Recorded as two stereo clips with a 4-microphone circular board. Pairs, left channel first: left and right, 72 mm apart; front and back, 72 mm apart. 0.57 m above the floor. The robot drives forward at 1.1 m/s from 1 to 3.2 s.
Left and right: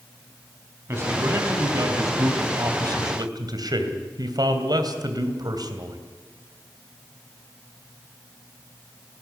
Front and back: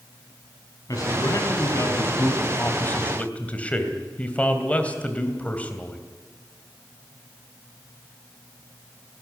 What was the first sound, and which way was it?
A man speaking, 40° right.